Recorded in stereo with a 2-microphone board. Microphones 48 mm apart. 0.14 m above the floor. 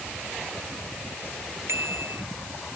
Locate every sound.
1.7 s a bicycle bell: 60° right (ahead or behind)